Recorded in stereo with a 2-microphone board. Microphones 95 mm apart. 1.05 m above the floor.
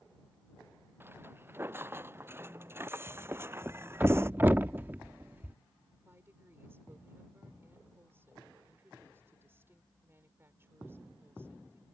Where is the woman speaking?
25° right (ahead or behind).